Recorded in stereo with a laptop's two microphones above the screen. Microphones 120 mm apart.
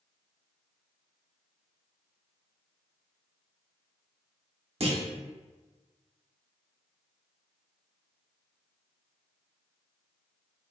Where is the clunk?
60° right (ahead or behind), 0.9 m.